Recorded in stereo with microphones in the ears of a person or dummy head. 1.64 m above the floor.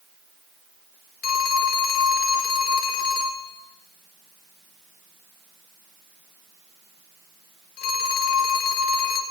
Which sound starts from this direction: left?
A phone ringing, at 1.2 s.